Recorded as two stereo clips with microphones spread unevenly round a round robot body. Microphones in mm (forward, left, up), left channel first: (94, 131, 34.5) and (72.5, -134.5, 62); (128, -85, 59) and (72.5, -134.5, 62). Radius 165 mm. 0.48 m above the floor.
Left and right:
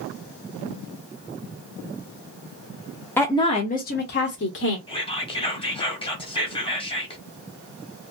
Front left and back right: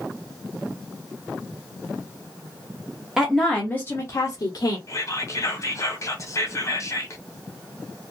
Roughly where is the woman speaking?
Behind left.